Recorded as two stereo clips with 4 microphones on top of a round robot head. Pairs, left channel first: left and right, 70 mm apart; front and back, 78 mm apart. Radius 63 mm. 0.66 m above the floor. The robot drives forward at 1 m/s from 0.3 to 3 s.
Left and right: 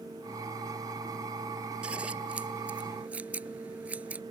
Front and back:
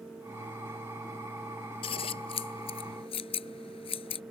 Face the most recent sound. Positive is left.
turn(degrees=-15)